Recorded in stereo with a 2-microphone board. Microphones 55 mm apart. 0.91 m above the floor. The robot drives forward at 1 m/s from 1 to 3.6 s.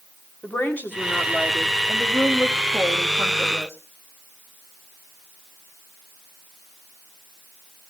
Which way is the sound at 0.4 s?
35° left (ahead or behind).